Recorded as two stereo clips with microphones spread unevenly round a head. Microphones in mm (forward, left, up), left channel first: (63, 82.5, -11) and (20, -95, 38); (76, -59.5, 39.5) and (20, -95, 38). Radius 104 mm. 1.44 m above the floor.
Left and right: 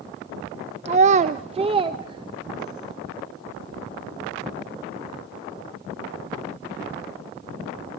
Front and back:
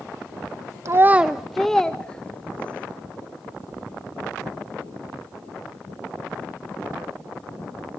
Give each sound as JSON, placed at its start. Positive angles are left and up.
{"t": 0.8, "sound": "a child speaking", "azimuth_deg": -125, "distance_m": 0.6}